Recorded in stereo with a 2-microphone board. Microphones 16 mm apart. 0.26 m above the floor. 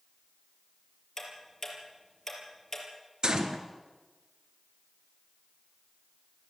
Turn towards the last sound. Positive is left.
turn(degrees=-55)  # may be behind; listen again after turning